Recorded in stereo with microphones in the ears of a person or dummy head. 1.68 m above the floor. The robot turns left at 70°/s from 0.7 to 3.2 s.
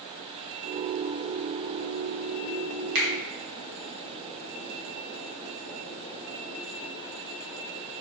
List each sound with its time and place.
3.0 s a finger snap: 50° right (ahead or behind), 0.7 m; by 3.1 s 55° right (ahead or behind), 0.7 m